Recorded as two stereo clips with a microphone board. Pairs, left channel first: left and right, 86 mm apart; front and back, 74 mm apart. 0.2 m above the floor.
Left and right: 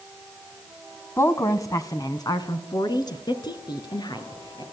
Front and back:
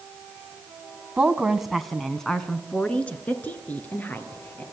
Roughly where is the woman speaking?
Behind left.